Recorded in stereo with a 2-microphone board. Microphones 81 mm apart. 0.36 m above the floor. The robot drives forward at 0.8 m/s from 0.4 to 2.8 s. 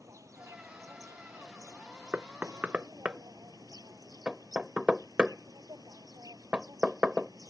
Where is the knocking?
20° right (ahead or behind); by 7.3 s 15° right (ahead or behind).